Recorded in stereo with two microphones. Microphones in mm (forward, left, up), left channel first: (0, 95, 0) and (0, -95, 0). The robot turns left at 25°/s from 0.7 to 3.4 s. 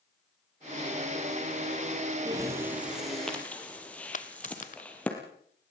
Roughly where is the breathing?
Right.